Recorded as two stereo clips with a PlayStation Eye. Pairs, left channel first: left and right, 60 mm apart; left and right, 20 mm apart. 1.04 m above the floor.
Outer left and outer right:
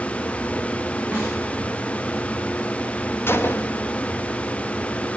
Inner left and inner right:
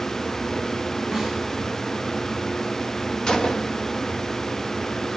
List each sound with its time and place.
1.1 s a snare drum: 20° right (ahead or behind), 7.5 m
3.3 s a gunshot: 40° left (ahead or behind), 0.7 m